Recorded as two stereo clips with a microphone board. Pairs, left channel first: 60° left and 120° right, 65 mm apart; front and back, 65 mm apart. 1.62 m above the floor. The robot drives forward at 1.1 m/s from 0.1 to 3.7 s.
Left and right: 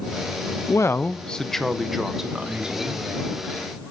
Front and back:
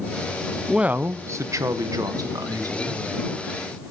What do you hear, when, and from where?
0.7 s a woman speaking: 95° left, 0.7 m; by 3.0 s 165° left, 3 m